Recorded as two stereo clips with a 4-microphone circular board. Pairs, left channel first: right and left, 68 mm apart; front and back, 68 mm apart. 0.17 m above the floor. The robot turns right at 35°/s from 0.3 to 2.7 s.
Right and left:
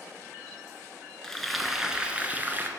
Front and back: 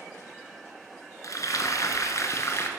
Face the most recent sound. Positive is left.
turn(degrees=40)